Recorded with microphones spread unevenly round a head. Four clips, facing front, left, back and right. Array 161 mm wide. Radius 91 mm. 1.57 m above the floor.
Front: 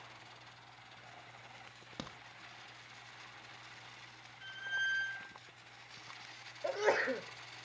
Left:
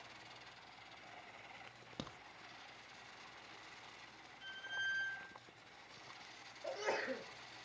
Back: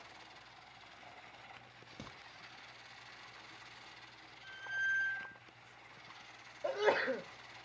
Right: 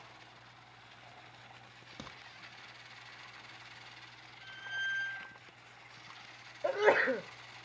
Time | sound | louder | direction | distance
2.0 | a crack | even, front 5 dB | 15° left | 1.1 m
4.4 | a squeak | right 4 dB, front 1 dB | 35° right | 4.5 m
6.6 | a sneeze | right 13 dB, even | 85° right | 0.9 m